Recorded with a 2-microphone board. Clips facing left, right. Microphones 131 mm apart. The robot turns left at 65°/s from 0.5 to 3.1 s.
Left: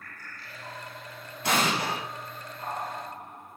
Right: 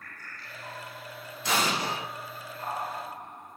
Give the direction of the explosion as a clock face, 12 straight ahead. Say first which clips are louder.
Left 2 dB; 9 o'clock.